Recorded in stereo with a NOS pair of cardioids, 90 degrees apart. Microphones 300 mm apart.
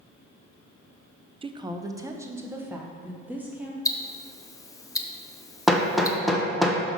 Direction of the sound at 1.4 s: 20° right.